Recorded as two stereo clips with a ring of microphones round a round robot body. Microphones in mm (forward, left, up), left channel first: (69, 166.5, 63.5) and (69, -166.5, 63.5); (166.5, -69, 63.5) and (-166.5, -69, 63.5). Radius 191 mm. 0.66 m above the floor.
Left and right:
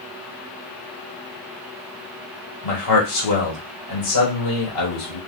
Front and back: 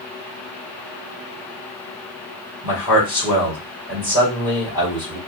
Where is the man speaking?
105° left, 2 m.